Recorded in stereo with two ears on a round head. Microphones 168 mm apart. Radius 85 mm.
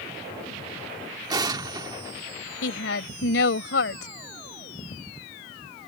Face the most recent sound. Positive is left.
turn(degrees=75)  # may be behind; listen again after turning